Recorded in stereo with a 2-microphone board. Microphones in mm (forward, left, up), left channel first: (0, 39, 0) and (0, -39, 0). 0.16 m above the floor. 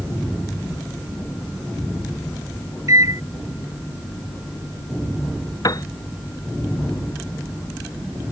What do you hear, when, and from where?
2.9 s a microwave: 45° right (ahead or behind)
5.6 s a piano: 50° left (ahead or behind)